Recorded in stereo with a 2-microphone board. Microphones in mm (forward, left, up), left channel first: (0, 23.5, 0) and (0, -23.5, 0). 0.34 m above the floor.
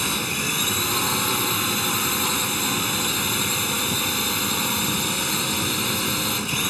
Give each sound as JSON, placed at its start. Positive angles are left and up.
{"t": 0.0, "sound": "a drone", "side_deg": 0}